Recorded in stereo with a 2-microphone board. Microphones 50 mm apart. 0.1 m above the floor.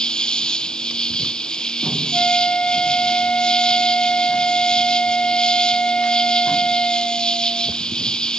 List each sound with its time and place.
0.0 s an insect: 15° left (ahead or behind)
2.1 s a flute: 25° left (ahead or behind)